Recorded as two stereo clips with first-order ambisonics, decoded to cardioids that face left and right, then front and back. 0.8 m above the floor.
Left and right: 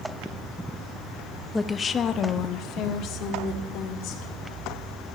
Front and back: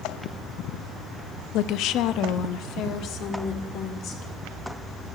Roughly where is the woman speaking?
Ahead.